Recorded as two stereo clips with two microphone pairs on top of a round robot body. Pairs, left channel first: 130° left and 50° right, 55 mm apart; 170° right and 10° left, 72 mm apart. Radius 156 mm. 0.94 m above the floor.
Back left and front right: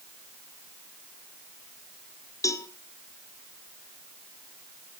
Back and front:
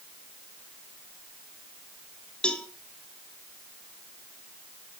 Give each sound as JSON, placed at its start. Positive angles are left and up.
{"t": 2.4, "sound": "a cowbell", "azimuth_deg": 115, "distance_m": 1.3}